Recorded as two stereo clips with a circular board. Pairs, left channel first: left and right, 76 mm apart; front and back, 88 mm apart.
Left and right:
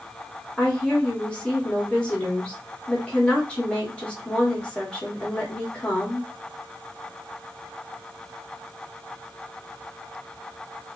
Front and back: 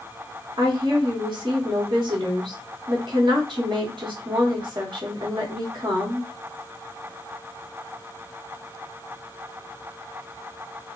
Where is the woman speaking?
165° left, 1.3 m.